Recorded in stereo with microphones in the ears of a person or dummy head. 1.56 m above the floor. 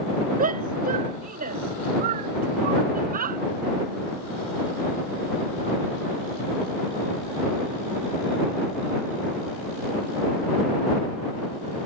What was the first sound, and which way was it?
A shout, 50° right (ahead or behind).